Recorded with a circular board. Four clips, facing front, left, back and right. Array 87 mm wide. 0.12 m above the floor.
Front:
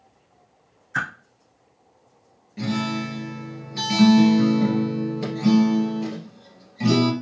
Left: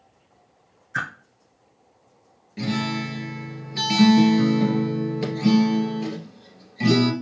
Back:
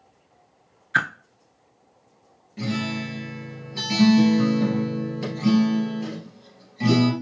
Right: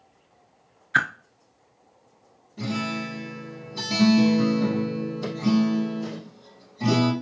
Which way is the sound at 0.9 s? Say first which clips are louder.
Right 6 dB, back 4 dB; 135° right.